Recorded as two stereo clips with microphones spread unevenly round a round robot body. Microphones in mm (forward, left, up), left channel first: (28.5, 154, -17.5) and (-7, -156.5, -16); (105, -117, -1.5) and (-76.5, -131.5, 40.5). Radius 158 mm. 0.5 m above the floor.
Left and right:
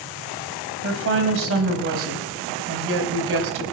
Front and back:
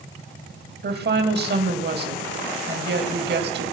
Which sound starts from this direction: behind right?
A woman speaking, at 0.8 s.